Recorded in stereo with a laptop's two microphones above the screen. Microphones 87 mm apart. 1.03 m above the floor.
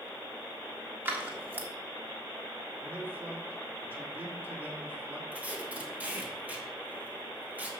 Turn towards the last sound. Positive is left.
turn(degrees=-15)  # may be behind; listen again after turning